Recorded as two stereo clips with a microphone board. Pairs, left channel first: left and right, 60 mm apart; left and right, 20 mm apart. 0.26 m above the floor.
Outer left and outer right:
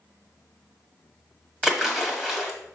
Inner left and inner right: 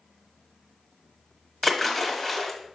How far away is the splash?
About 1.7 m.